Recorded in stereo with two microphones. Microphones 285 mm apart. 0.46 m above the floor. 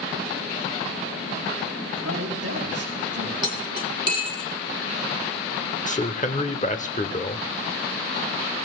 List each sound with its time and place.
2.0 s a man speaking: 65° right (ahead or behind), 4 m
3.4 s cutlery clinking: 65° left (ahead or behind), 2 m
5.9 s a man speaking: 30° left (ahead or behind), 1.0 m